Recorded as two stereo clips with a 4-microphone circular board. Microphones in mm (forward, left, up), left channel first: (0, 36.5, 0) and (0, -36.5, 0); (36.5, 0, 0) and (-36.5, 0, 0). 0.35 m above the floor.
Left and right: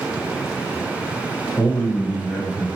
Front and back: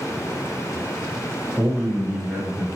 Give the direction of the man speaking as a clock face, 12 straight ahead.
8 o'clock.